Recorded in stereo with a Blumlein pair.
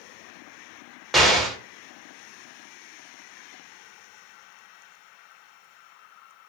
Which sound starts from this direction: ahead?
An explosion, at 1.1 s.